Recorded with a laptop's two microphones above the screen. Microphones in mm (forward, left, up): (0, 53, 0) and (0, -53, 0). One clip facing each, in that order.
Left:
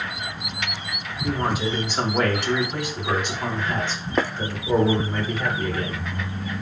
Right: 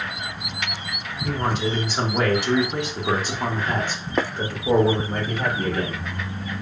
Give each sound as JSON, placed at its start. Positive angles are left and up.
{"t": 1.2, "sound": "a man speaking", "side_deg": 10, "distance_m": 1.4}